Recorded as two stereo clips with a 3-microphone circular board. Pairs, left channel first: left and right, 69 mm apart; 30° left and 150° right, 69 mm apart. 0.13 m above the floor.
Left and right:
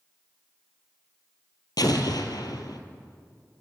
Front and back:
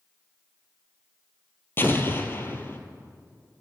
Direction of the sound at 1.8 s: 85° left.